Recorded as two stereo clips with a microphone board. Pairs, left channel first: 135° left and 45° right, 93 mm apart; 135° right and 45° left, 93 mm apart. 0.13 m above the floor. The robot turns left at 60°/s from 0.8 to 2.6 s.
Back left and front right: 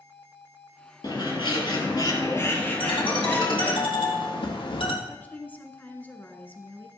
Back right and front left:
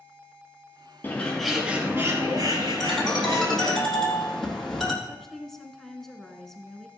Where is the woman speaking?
145° left, 1.2 m.